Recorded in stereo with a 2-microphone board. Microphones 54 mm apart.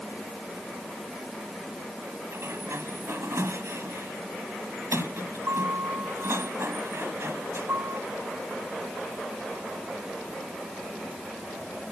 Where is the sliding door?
55° right (ahead or behind).